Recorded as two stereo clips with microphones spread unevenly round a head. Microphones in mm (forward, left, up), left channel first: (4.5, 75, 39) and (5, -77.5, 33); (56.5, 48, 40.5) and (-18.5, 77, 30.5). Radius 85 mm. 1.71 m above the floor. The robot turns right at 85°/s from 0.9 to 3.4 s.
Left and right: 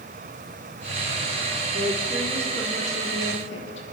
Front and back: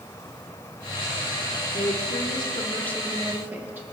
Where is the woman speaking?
50° right, 1.5 m; by 3.8 s 90° left, 1.5 m.